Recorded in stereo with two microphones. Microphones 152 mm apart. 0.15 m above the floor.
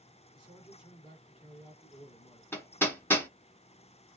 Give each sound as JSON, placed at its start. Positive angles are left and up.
{"t": 0.3, "sound": "a man speaking", "side_deg": 35, "distance_m": 1.9}
{"t": 2.5, "sound": "hammering", "side_deg": 15, "distance_m": 1.1}